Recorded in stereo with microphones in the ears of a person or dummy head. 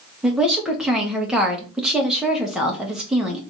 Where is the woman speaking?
5° right (ahead or behind), 1.0 m.